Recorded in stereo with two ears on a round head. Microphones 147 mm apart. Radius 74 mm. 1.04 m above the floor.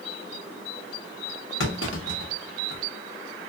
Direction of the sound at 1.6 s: 80° left.